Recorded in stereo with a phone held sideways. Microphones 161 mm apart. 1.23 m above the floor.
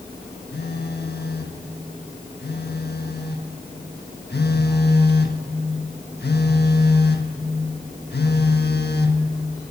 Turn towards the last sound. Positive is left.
turn(degrees=75)  # may be behind; listen again after turning